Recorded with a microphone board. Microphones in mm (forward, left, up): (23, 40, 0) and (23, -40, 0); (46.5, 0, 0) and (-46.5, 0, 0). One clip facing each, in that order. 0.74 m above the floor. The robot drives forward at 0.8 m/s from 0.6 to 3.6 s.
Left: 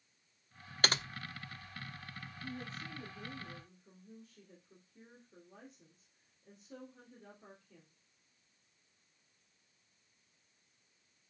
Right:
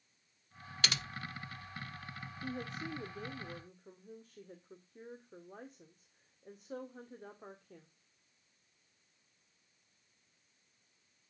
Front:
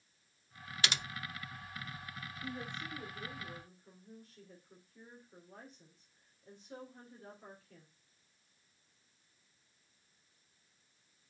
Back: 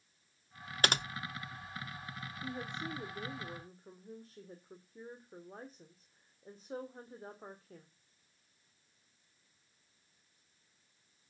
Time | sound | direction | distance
0.8 | typing on a keyboard | 135° left | 0.7 m
2.4 | a woman speaking | 105° right | 1.7 m